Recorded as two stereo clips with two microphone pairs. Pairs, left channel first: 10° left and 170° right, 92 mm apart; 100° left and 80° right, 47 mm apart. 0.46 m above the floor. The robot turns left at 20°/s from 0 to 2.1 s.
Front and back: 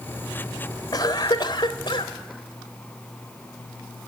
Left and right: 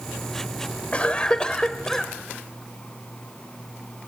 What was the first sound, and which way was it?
A cough, 45° left.